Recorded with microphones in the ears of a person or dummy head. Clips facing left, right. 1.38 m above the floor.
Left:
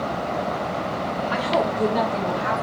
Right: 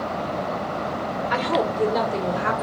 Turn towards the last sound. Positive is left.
turn(degrees=-80)